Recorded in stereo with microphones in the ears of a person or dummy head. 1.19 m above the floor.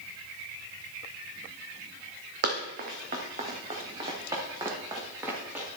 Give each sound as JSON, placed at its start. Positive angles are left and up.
{"t": 2.4, "sound": "running footsteps", "side_deg": -55, "distance_m": 2.5}